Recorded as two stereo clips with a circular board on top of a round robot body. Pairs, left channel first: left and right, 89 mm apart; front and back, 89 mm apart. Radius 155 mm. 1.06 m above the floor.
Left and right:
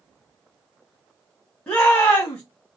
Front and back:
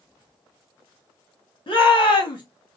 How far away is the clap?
I don't hear a clap.